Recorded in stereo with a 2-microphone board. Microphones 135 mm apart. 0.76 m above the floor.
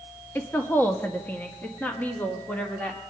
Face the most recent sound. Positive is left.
turn(degrees=10)  # may be behind; listen again after turning